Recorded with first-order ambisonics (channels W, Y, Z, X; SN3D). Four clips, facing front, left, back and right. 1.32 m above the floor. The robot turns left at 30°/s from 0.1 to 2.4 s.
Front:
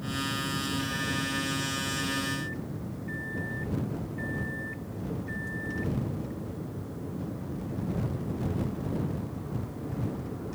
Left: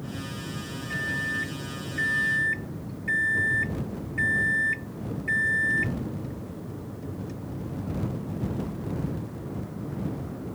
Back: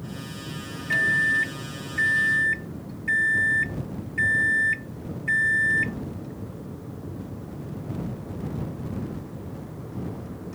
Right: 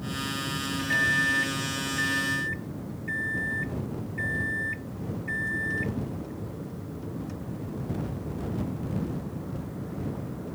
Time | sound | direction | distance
0.9 | a microwave | 155° right | ?